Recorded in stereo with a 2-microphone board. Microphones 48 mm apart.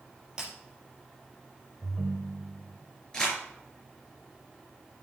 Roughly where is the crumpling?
Centre.